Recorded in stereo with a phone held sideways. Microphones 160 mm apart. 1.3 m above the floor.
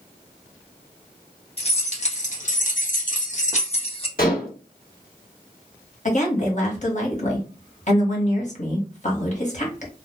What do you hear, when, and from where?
1.6 s keys jangling: 40° left (ahead or behind), 1.1 m; by 4.1 s 35° left (ahead or behind), 0.9 m
4.2 s dishes clattering: 65° left (ahead or behind), 1.4 m
6.0 s a woman speaking: 50° left (ahead or behind), 1.2 m